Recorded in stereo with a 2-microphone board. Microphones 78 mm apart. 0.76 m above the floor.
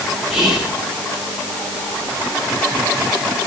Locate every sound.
0.3 s whispering: centre (ahead or behind), 2 m